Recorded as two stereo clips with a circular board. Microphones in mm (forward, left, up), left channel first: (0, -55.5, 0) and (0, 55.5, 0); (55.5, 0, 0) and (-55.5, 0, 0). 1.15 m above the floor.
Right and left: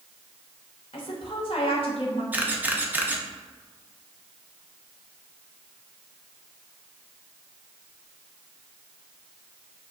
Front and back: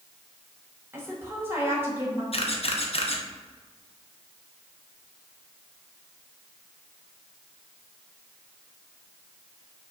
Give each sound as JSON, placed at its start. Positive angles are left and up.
{"t": 0.9, "sound": "a woman speaking", "azimuth_deg": -115, "distance_m": 1.4}
{"t": 2.3, "sound": "a camera shutter", "azimuth_deg": 15, "distance_m": 0.6}